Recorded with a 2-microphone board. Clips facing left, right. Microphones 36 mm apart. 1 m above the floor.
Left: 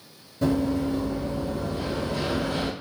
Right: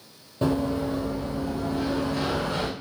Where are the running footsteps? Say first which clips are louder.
Left 1 dB; 45° right (ahead or behind), 1.3 m; by 2.7 s 65° right (ahead or behind), 2.5 m.